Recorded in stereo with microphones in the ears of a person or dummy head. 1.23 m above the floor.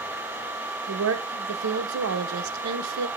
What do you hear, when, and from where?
0.9 s a woman speaking: 80° right, 1.1 m